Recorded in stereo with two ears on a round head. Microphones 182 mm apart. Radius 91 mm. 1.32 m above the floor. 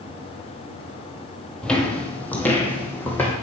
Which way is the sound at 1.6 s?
5° left (ahead or behind).